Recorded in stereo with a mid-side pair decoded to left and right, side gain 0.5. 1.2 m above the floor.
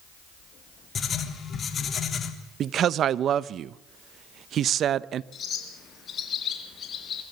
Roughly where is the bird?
Ahead left.